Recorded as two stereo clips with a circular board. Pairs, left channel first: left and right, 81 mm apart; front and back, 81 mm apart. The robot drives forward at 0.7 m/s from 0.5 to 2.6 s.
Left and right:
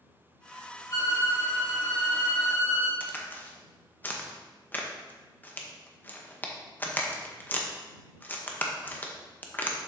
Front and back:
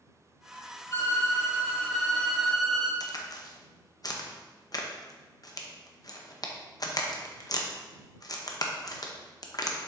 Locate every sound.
0.9 s a violin: 50° left, 2.0 m; by 2.9 s 90° left, 1.6 m
3.0 s a crack: 25° left, 0.8 m